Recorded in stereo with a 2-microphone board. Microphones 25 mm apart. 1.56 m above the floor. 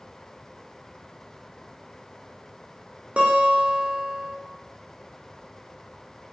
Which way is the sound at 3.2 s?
50° right (ahead or behind).